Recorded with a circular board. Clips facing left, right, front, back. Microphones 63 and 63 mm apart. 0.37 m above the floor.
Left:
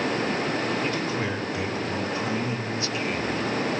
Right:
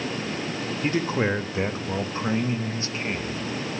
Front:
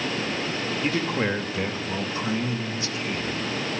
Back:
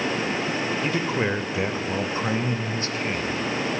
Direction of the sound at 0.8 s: 75° right.